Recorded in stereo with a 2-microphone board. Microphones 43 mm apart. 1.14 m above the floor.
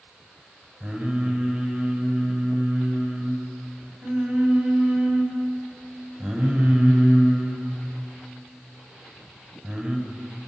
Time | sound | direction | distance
0.8 | singing | 35° right (ahead or behind) | 6.5 m